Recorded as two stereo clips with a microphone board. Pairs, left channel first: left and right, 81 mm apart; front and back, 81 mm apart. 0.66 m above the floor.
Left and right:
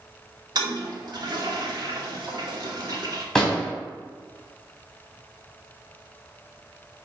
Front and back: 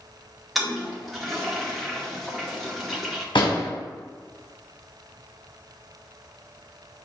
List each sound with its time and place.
0.6 s a toilet flushing: 90° right, 1.7 m
3.4 s a door slam: 5° left, 3 m